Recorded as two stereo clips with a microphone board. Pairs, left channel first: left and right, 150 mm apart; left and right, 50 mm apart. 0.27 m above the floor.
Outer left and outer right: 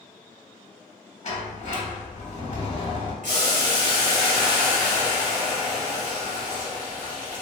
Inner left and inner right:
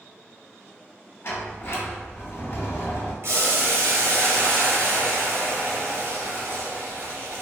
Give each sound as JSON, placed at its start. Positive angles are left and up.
{"t": 1.2, "sound": "a sliding door", "side_deg": 50, "distance_m": 0.7}
{"t": 3.2, "sound": "boiling", "side_deg": -60, "distance_m": 1.1}